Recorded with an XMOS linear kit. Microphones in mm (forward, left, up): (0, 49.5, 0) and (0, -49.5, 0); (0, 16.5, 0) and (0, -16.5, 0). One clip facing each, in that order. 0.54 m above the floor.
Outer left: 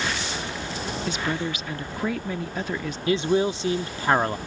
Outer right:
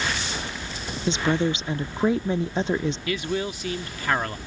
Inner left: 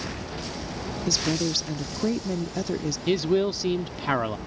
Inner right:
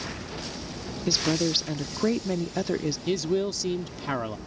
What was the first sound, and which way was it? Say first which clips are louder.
A woman speaking: outer right 7 dB, inner right 1 dB; 25° right (ahead or behind).